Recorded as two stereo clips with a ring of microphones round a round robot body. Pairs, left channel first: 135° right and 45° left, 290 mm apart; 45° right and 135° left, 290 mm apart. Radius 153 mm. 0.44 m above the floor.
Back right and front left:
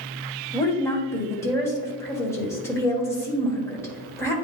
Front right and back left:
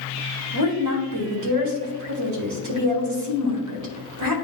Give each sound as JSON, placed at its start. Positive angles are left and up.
{"t": 0.5, "sound": "a woman speaking", "azimuth_deg": 145, "distance_m": 1.7}